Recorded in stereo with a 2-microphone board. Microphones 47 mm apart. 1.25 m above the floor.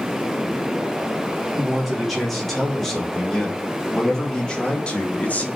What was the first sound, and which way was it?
A man speaking, centre (ahead or behind).